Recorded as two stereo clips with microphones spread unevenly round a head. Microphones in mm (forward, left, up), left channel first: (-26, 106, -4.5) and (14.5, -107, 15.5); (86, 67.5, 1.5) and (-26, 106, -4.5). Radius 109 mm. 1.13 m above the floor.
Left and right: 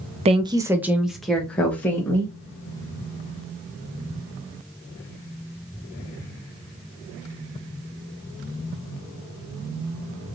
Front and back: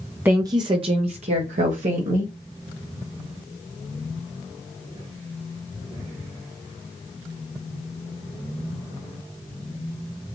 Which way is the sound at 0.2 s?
130° right.